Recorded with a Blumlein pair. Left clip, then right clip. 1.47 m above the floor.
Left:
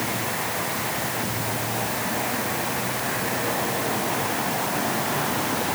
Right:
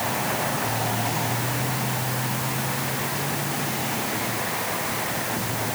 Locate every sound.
Only background noise.